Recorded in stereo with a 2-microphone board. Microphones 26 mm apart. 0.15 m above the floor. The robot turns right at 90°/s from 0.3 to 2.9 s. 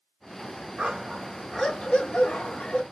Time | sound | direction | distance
0.8 | a dog barking | 55° right | 0.8 m